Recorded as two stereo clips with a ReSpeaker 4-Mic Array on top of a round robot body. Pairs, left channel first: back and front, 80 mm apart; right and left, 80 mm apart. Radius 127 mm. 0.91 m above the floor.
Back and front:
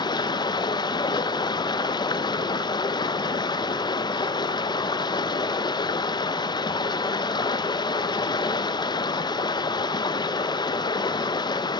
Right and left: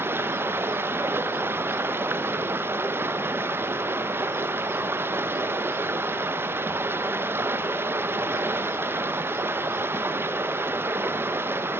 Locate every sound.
0.0 s running water: 150° left, 0.8 m